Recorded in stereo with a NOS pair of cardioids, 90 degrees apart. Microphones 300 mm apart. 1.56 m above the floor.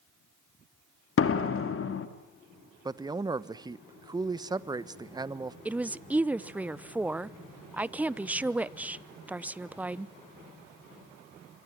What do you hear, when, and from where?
1.2 s a door slam: 45° left, 2.5 m
2.9 s a man speaking: 15° right, 1.2 m
5.7 s a woman speaking: 5° right, 0.8 m